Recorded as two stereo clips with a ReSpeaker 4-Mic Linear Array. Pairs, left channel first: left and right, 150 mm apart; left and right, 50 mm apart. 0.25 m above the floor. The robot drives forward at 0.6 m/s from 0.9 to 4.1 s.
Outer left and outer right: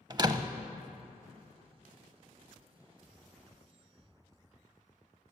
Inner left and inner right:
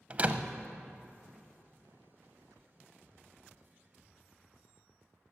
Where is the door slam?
30° right (ahead or behind), 0.7 m.